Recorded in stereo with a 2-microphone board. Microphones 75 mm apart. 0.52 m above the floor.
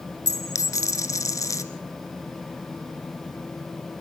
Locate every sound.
0.3 s a dropped coin: 40° left (ahead or behind), 1.6 m